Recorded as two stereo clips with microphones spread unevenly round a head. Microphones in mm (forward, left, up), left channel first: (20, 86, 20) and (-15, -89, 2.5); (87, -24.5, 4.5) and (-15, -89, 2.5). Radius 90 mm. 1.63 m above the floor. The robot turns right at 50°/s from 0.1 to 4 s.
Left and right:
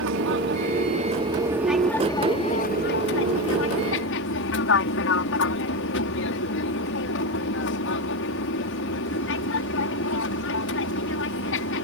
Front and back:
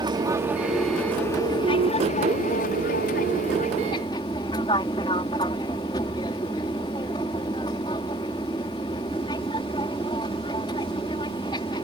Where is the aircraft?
95° right; by 11.8 s 100° left.